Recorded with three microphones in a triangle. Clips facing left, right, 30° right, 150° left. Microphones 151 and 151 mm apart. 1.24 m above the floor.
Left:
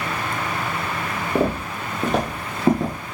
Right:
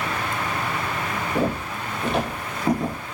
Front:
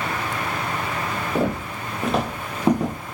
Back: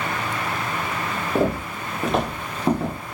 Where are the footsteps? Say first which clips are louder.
Left 4 dB, back 2 dB; 75° left, 2 m; by 3.1 s 15° left, 1.5 m.